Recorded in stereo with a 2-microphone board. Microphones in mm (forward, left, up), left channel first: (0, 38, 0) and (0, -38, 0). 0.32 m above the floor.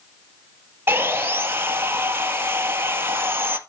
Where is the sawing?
30° right (ahead or behind), 1.6 m.